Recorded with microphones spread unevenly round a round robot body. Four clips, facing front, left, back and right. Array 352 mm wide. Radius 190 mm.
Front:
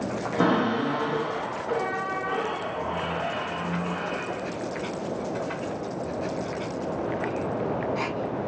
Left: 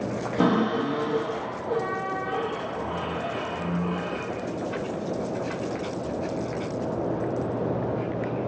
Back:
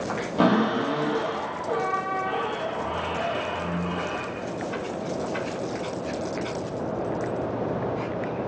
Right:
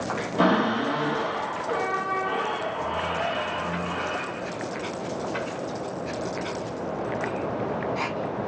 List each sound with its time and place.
0.4 s a cupboard door: 160° left, 0.8 m